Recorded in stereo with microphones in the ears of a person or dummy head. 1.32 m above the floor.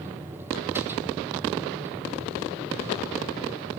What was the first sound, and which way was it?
A machine running, 20° right (ahead or behind).